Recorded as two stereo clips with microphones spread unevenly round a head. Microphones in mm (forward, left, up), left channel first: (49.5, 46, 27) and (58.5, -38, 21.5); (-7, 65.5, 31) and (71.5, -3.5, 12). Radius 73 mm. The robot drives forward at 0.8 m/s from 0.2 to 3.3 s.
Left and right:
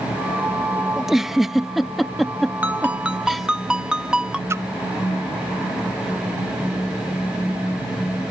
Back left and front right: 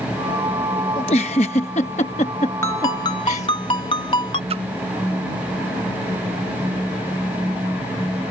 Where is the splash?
25° right.